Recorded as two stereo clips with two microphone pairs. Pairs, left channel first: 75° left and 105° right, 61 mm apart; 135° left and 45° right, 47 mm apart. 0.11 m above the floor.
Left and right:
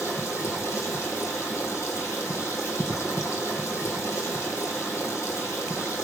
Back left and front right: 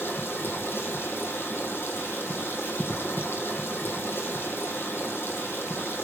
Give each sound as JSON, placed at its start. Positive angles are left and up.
{"t": 0.0, "sound": "running water", "azimuth_deg": 110, "distance_m": 2.5}